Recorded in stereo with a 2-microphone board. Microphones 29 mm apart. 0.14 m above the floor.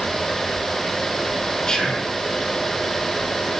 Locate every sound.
1.7 s whispering: 25° left (ahead or behind), 1.7 m